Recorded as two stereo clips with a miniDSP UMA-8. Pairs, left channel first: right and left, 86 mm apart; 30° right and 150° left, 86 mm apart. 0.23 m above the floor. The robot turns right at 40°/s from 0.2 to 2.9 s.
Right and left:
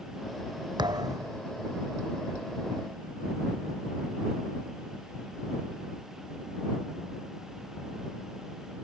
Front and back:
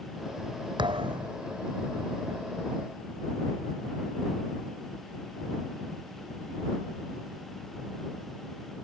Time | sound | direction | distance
0.8 | a thud | 120° left | ?